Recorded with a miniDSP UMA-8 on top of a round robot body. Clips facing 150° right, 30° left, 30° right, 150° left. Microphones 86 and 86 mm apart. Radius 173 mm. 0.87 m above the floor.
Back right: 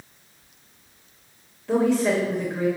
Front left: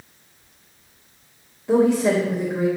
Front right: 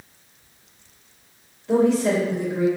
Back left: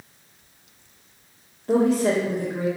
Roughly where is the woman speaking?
Left.